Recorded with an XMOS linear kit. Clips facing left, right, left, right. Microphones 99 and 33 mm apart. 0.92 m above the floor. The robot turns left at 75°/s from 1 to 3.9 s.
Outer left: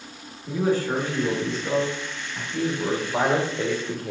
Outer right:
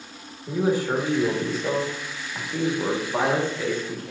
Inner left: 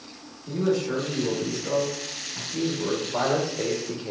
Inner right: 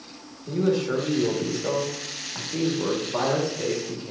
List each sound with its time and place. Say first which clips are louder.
0.5 s a man speaking: even, inner right 1 dB; 15° right, 1.1 m; by 4.1 s 130° left, 1.1 m